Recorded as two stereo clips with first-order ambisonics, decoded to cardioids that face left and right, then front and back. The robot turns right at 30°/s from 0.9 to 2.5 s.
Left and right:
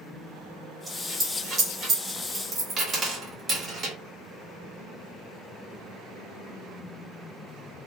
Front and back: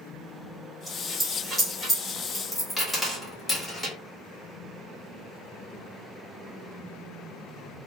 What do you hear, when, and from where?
0.9 s a dropped coin: 130° right, 1.1 m; by 4.0 s 80° right, 1.1 m